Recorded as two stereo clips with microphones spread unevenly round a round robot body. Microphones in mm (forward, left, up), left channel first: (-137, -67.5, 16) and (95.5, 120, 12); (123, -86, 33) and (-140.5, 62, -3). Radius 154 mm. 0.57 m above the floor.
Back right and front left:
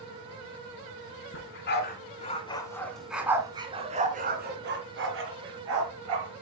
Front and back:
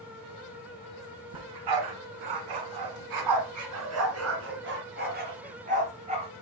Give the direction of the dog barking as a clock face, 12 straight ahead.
6 o'clock.